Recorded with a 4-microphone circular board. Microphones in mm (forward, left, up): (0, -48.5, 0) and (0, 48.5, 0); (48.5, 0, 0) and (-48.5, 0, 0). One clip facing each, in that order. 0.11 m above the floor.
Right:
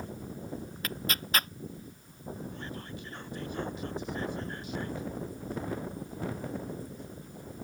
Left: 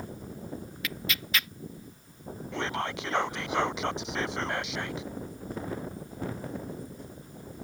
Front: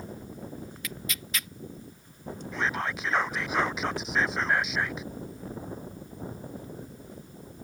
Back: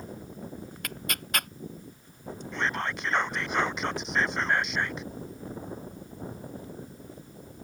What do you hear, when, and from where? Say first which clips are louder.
0.8 s tearing paper: even, back 2 dB; 140° right
2.5 s whispering: left 10 dB, even; 85° left